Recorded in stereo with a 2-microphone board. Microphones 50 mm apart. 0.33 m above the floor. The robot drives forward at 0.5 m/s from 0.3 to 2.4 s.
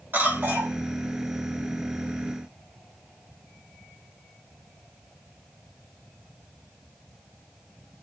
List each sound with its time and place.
0.1 s a cough: 45° right (ahead or behind), 2 m